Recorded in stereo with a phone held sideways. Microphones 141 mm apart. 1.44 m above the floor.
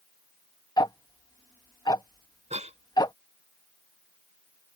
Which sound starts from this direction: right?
A cough, at 2.5 s.